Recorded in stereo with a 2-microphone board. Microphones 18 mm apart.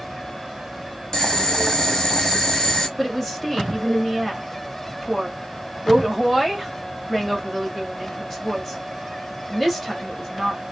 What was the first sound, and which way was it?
Boiling, 40° left (ahead or behind).